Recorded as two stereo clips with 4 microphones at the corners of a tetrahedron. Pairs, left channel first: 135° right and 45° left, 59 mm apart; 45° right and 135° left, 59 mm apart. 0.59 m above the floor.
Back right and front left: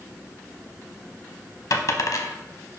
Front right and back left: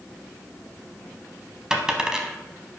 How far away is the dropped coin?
About 0.8 m.